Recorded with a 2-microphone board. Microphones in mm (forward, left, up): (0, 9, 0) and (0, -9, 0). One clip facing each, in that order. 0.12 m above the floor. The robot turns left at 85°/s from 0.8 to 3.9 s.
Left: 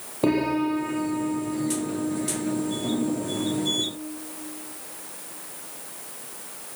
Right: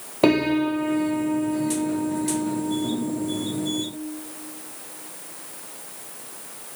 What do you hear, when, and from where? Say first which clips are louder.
0.2 s a piano: right 3 dB; 45° right, 4 m; by 3.8 s 65° left, 4 m